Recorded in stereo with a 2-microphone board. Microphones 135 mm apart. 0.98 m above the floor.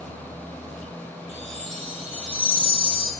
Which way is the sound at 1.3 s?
50° right (ahead or behind).